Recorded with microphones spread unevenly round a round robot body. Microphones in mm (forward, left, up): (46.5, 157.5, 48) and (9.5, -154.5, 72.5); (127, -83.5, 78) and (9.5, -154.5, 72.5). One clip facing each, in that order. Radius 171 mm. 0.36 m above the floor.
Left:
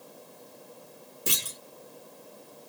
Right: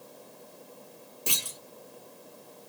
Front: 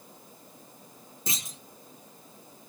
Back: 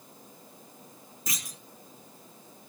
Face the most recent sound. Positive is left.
turn(degrees=65)